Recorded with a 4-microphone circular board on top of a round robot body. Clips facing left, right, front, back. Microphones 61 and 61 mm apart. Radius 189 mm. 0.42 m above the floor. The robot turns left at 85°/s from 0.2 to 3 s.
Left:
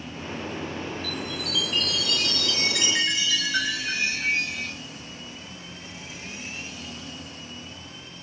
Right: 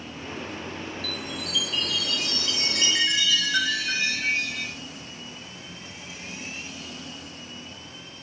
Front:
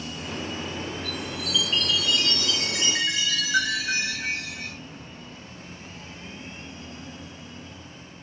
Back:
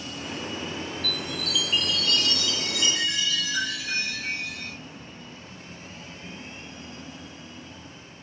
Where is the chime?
170° left, 5 m; by 4.7 s straight ahead, 5 m.